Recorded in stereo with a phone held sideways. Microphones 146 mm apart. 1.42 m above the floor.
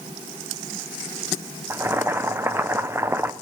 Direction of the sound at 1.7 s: 15° right (ahead or behind).